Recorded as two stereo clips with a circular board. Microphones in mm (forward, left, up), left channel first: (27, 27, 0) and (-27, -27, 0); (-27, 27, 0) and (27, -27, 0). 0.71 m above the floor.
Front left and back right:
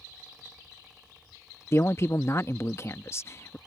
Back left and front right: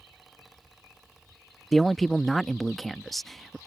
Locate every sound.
1.7 s a man speaking: 45° left